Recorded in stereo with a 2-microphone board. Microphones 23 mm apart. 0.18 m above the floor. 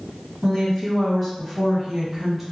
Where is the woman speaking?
20° left (ahead or behind), 1.7 m; by 2.4 s 5° left (ahead or behind), 1.5 m.